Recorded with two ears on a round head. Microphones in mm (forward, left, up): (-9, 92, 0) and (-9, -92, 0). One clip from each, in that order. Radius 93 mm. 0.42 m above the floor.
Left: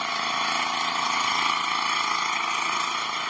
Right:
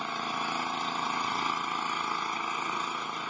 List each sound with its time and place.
0.0 s an engine running: 65° left (ahead or behind)